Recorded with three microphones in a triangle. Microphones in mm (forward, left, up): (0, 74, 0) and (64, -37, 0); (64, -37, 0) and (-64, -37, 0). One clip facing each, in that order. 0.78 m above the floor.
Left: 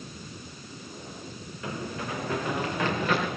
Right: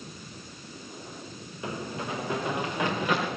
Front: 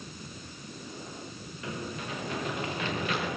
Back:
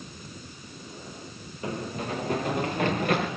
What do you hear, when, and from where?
1.6 s running footsteps: 130° right, 6 m; by 3.3 s 140° right, 6 m